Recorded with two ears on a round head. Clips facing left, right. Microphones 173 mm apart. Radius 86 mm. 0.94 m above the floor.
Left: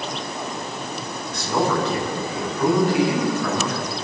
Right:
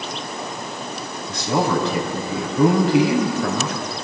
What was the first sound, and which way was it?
A man speaking, 65° right (ahead or behind).